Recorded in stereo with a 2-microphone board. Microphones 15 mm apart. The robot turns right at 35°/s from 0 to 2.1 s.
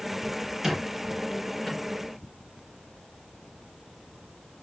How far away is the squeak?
About 1.2 m.